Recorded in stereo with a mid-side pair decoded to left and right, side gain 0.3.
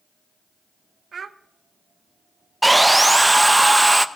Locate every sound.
1.1 s a child speaking: 60° right, 0.8 m
2.6 s sawing: 20° right, 0.8 m